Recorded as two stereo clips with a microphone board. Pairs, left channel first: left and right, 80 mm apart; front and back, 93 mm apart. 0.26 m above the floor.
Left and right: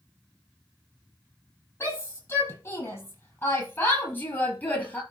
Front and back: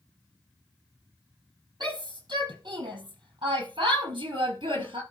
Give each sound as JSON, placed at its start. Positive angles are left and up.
{"t": 1.8, "sound": "a shout", "azimuth_deg": 145, "distance_m": 6.5}